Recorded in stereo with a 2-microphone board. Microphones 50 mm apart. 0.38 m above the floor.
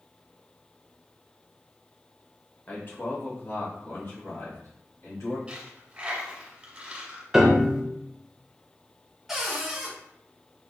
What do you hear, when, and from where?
2.7 s a man speaking: 35° left (ahead or behind), 0.9 m; by 5.4 s 60° left (ahead or behind), 2.5 m
5.5 s a dropped coin: 20° right (ahead or behind), 1.4 m
7.3 s a piano: 10° right (ahead or behind), 0.6 m
9.3 s a cupboard door: 5° right (ahead or behind), 1.1 m